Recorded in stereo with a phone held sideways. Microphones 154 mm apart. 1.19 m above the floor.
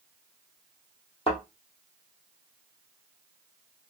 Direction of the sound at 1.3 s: 35° left (ahead or behind).